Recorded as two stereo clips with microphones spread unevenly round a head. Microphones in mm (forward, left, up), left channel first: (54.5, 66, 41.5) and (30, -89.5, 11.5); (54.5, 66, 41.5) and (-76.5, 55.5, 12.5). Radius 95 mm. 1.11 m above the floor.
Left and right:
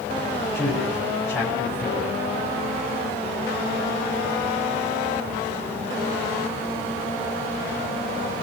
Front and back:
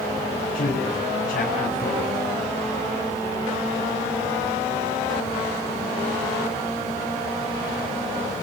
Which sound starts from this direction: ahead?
A man speaking, at 0.5 s.